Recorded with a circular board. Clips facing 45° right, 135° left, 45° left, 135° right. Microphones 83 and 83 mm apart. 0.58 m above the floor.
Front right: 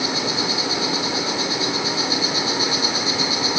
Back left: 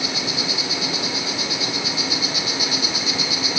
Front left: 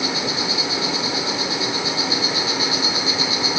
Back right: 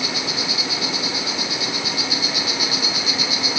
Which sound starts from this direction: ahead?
An insect, at 0.0 s.